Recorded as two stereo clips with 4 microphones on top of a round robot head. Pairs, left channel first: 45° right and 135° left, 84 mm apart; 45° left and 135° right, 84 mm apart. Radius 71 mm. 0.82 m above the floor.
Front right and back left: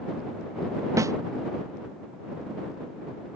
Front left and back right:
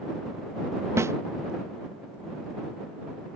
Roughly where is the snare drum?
Behind.